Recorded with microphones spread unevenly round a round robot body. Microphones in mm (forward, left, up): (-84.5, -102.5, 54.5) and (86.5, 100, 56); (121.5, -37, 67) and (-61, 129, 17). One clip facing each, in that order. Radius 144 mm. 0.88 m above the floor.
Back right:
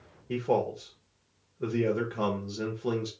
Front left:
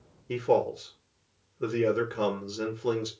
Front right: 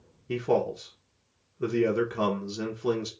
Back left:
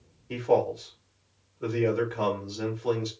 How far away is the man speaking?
About 1.5 m.